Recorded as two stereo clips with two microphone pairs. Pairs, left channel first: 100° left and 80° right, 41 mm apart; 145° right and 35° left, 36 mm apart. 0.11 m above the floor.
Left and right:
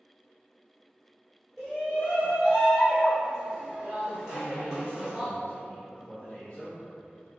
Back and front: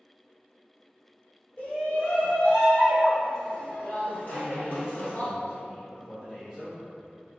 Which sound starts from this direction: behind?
A shout, at 1.6 s.